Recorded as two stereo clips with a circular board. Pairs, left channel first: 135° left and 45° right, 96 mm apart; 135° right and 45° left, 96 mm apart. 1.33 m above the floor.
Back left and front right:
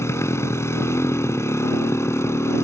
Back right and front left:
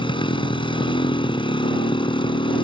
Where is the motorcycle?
165° right.